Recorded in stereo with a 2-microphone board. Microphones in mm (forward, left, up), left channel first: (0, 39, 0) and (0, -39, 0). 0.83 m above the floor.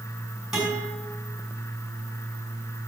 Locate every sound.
0.5 s a guitar: 5° right (ahead or behind), 6 m